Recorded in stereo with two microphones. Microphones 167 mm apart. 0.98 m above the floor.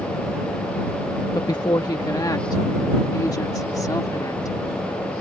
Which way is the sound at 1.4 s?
25° left (ahead or behind).